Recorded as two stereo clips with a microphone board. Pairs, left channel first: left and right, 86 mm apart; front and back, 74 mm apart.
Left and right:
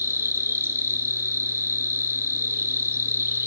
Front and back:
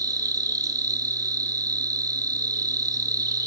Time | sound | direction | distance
0.0 | an insect | 150° right | 2 m